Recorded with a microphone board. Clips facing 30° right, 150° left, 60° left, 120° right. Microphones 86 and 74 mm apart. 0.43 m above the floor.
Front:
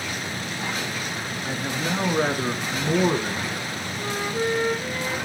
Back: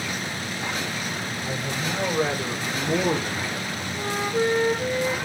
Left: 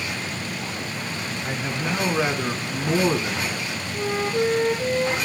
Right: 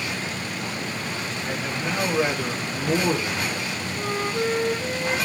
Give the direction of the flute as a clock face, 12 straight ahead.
9 o'clock.